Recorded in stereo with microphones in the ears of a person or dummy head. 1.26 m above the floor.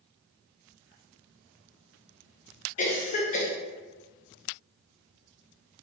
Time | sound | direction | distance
2.8 | a cough | 35° left (ahead or behind) | 0.6 m